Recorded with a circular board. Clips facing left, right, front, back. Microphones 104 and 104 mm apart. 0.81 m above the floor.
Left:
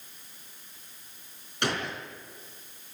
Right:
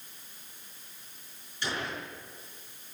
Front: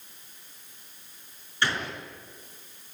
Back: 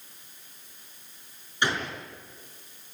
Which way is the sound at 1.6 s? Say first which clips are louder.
Left 4 dB, back 1 dB; 110° left.